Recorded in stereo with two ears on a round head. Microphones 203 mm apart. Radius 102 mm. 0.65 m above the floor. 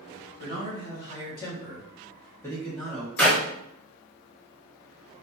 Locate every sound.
0.4 s a man speaking: 50° left (ahead or behind), 1.3 m; by 3.1 s 5° right (ahead or behind), 1.0 m
3.2 s a clap: 5° left (ahead or behind), 0.7 m